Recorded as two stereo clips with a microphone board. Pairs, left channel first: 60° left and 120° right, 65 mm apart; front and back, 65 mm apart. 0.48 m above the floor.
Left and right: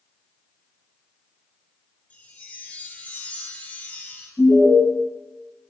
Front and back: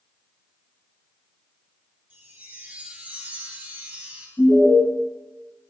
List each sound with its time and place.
2.1 s a chime: 125° left, 1.3 m
4.4 s an alarm: 40° left, 4 m